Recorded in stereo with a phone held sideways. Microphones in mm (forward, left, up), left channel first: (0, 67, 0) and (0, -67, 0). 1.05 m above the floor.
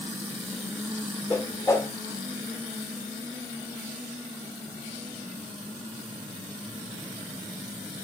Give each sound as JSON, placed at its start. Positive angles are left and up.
{"t": 1.3, "sound": "a whoosh", "side_deg": 20, "distance_m": 0.7}